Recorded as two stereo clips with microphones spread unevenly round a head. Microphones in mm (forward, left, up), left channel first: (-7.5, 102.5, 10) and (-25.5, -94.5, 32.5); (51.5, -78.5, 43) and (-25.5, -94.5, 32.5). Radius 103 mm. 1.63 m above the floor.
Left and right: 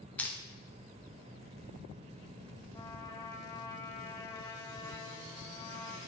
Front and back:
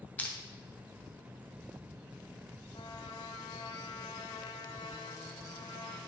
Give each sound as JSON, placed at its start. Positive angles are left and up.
{"t": 0.2, "sound": "crushing", "azimuth_deg": -5, "distance_m": 0.7}
{"t": 2.7, "sound": "a trumpet", "azimuth_deg": 10, "distance_m": 0.6}